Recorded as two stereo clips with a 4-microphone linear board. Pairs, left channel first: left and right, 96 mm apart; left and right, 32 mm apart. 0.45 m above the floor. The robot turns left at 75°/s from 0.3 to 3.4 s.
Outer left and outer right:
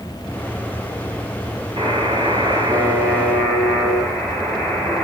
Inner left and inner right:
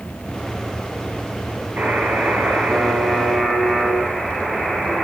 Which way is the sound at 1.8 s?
70° right.